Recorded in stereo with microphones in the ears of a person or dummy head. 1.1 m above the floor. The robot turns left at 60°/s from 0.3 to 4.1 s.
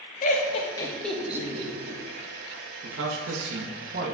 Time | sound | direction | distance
0.2 | laughter | 50° left (ahead or behind) | 1.1 m
2.8 | a man speaking | 65° right | 0.9 m